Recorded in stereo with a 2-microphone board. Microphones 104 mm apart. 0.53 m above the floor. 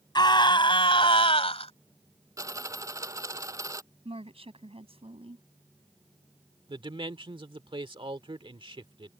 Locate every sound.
0.1 s a scream: 45° left (ahead or behind); by 1.7 s 70° left (ahead or behind)
2.4 s a dropped coin: 30° right (ahead or behind)
4.0 s a woman speaking: 70° right (ahead or behind)
6.7 s a man speaking: 55° right (ahead or behind)